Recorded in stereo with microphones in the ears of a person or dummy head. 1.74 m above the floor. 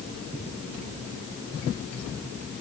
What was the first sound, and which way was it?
Only background noise.